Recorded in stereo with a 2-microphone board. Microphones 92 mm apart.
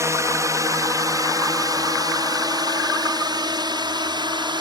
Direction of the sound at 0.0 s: 30° right (ahead or behind).